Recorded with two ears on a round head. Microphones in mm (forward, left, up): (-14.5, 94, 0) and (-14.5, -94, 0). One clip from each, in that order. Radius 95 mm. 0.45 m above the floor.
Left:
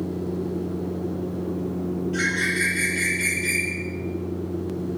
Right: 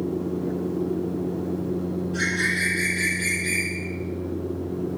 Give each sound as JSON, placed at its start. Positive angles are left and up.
{"t": 2.1, "sound": "a bird", "side_deg": 75, "distance_m": 8.5}